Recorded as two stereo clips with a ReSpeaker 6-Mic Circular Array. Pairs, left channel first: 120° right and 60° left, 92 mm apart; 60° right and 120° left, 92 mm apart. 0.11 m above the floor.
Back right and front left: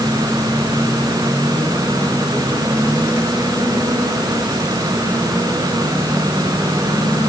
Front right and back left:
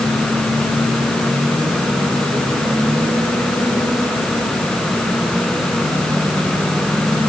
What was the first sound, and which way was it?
Only background noise.